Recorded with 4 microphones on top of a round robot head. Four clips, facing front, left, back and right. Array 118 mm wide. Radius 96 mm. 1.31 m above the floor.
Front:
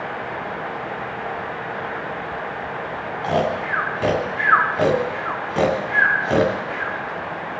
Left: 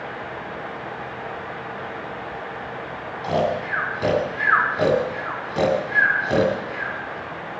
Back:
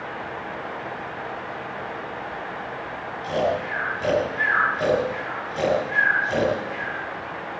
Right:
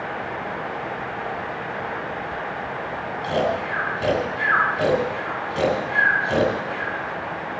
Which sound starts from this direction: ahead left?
Snoring, at 3.2 s.